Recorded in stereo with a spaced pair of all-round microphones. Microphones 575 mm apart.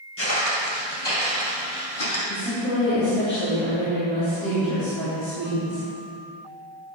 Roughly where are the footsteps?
Left.